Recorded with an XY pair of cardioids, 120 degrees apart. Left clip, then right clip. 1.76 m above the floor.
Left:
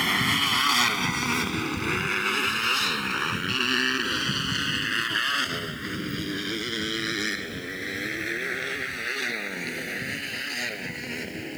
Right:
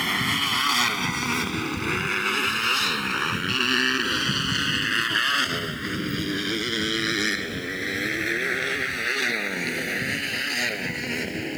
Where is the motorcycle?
10° left; by 11.6 s 25° right.